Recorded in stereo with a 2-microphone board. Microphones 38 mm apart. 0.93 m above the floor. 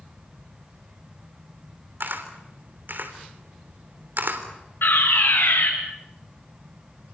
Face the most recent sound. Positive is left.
turn(degrees=70)  # may be behind; listen again after turning